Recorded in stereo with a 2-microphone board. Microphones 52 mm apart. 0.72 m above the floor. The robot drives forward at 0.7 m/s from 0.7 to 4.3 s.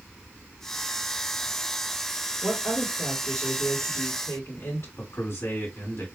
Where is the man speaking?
55° left (ahead or behind), 2 m.